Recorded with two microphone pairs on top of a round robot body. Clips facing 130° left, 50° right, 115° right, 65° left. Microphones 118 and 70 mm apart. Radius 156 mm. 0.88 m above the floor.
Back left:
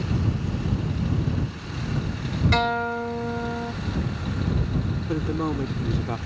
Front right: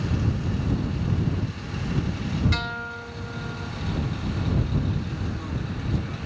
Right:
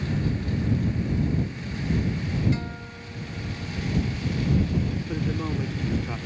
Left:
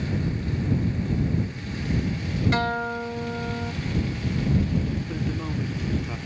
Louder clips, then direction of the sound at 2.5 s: Back left 9 dB, left 9 dB; 95° left.